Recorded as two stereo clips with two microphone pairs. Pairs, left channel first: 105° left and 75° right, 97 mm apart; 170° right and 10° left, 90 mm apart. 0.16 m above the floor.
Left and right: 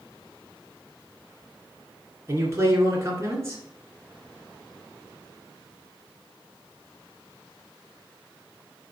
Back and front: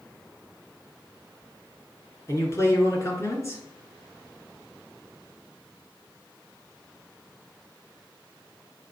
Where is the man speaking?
130° right, 1.9 m.